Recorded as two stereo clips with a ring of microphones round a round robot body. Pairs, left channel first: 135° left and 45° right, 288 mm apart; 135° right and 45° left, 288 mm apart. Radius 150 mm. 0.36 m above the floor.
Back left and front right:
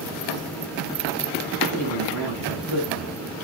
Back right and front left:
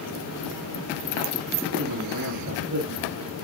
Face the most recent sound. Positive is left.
turn(degrees=-10)